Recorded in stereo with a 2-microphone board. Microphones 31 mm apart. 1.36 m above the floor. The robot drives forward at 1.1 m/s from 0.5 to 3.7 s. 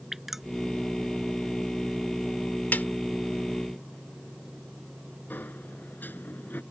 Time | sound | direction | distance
0.1 | dripping | 5° right (ahead or behind) | ?
2.7 | a snare drum | 80° left | ?
5.3 | a sliding door | 80° left | ?